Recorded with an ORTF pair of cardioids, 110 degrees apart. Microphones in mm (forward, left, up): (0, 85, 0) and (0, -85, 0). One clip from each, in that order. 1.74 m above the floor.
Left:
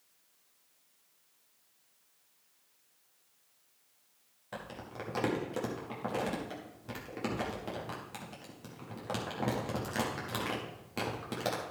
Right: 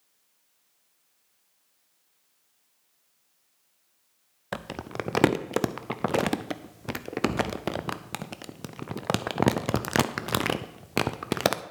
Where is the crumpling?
65° right, 0.6 m.